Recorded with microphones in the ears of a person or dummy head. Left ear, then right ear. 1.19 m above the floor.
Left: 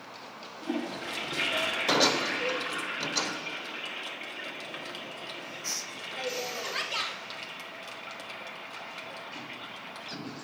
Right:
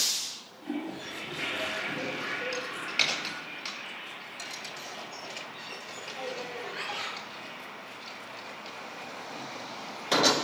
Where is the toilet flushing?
55° left (ahead or behind), 1.5 m.